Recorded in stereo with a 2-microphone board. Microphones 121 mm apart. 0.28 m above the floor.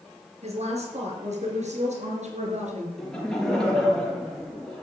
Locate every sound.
0.4 s a woman speaking: 65° right (ahead or behind), 5 m; by 2.9 s 75° right (ahead or behind), 4.5 m
3.0 s laughter: 5° left (ahead or behind), 5.5 m